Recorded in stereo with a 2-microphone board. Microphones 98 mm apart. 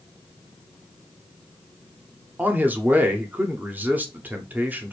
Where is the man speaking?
20° right (ahead or behind), 0.7 m.